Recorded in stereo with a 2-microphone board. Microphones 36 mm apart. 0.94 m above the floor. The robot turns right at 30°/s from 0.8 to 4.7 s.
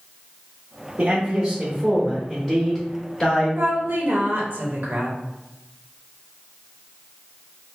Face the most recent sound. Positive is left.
turn(degrees=-60)